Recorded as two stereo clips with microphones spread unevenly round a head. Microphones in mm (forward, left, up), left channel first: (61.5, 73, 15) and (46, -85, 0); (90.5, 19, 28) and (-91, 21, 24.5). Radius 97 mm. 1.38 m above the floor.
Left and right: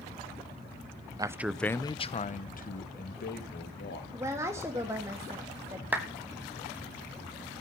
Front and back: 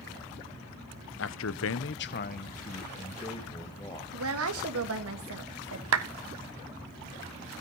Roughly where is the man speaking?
Ahead right.